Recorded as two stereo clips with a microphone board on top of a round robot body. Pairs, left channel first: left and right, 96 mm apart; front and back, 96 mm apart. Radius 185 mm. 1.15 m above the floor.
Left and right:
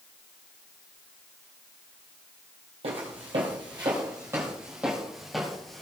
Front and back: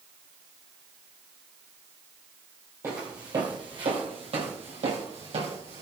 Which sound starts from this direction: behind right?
Footsteps, at 2.8 s.